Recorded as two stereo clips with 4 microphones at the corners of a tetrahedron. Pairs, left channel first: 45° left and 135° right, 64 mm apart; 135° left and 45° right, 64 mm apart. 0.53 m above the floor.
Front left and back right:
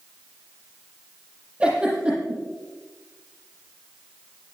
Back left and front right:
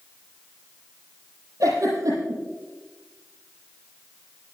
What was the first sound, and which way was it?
A giggle, 65° right.